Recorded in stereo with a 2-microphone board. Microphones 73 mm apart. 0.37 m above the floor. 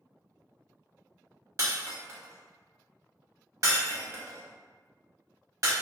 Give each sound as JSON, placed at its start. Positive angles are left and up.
{"t": 1.6, "sound": "breaking glass", "side_deg": -50, "distance_m": 0.9}